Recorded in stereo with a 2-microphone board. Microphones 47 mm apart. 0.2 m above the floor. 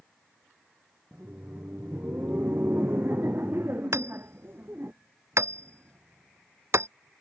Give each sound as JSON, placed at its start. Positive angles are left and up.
{"t": 1.1, "sound": "laughter", "side_deg": -50}
{"t": 3.9, "sound": "hammering", "side_deg": -85}